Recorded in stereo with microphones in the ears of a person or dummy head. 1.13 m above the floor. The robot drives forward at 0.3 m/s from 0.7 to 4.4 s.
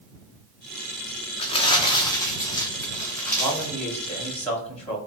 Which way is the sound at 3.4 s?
Centre (ahead or behind).